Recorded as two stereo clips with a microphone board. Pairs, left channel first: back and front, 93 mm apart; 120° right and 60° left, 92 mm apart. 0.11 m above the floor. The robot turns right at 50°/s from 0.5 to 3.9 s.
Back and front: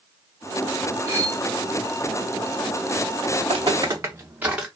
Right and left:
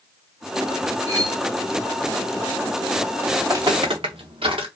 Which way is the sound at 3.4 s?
10° right.